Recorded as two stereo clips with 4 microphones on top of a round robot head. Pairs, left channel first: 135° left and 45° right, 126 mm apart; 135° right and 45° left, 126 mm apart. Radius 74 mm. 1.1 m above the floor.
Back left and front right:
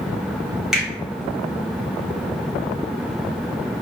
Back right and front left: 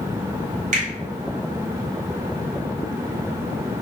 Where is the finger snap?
45° left, 1.1 m.